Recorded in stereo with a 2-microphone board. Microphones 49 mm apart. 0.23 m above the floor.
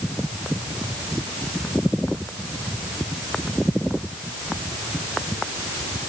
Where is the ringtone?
No ringtone in this recording.